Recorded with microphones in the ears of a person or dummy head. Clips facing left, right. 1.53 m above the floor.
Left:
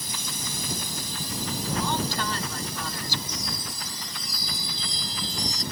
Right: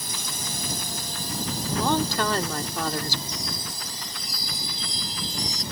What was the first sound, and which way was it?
A drone, 55° right (ahead or behind).